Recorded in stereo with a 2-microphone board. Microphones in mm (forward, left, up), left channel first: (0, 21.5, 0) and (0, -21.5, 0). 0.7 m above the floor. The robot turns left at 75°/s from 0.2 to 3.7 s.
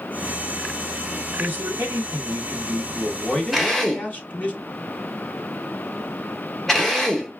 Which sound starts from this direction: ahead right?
A man speaking, at 1.4 s.